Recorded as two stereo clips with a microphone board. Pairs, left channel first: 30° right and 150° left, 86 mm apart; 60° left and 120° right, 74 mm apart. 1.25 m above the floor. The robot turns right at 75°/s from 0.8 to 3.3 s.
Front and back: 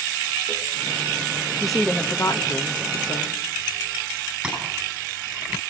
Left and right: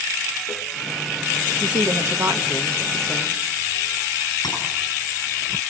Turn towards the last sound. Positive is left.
turn(degrees=65)